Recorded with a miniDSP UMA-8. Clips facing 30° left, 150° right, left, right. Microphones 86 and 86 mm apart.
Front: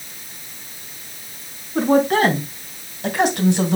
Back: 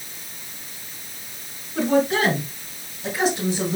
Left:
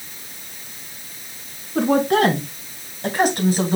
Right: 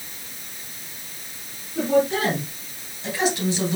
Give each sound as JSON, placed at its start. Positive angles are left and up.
{"t": 1.8, "sound": "a woman speaking", "azimuth_deg": 75, "distance_m": 3.0}